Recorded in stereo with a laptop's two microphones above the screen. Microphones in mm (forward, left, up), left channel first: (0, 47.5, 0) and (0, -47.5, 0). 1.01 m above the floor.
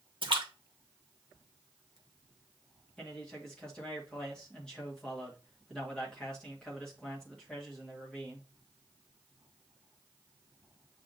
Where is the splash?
55° right (ahead or behind), 1.0 m.